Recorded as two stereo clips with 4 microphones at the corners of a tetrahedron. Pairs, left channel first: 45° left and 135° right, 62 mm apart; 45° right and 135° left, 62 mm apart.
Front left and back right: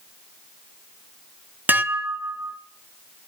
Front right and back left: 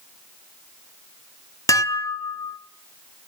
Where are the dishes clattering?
75° right, 0.9 m.